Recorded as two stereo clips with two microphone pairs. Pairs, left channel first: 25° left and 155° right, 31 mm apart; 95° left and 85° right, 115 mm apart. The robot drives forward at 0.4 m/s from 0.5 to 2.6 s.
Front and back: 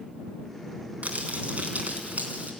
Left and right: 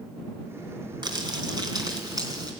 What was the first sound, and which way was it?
Crumpling, 130° right.